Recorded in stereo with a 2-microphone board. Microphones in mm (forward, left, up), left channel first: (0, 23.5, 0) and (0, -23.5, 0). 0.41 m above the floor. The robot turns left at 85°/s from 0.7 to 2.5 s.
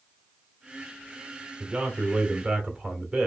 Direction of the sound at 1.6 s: 15° right (ahead or behind).